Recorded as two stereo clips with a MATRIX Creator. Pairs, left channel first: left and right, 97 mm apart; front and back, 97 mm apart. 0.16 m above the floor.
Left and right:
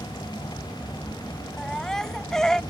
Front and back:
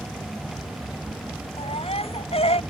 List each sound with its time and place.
1.6 s a baby crying: 5° left